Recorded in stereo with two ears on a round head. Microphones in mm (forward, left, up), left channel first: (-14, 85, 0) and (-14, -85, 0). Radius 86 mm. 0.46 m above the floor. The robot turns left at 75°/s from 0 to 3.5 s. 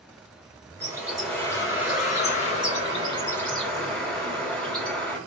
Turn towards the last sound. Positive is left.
turn(degrees=10)